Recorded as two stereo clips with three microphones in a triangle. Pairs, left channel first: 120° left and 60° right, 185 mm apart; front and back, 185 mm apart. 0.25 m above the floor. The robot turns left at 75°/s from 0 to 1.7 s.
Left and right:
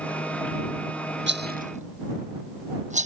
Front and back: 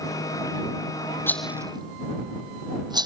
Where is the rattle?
80° right; by 3.1 s 110° right.